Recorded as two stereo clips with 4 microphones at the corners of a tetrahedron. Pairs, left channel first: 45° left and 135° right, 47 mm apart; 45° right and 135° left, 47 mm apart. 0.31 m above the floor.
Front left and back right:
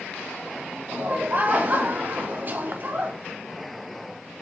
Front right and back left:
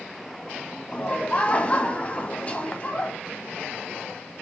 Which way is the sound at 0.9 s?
100° right.